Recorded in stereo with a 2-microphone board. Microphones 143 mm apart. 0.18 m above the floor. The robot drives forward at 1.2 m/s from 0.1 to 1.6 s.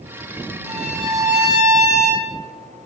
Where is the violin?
50° right (ahead or behind), 1.3 m; by 2.3 s 30° right (ahead or behind), 1.8 m.